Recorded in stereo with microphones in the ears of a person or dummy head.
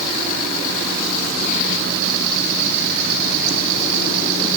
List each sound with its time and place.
Only background noise.